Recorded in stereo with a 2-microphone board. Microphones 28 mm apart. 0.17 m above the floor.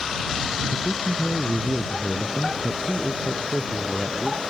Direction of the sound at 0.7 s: 30° right (ahead or behind).